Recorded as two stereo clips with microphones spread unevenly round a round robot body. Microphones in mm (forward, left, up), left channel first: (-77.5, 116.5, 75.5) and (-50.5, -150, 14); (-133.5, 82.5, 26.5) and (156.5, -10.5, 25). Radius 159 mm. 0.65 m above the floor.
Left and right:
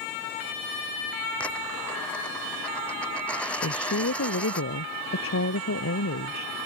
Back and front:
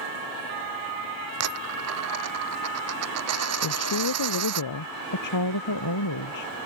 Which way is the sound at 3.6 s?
135° left.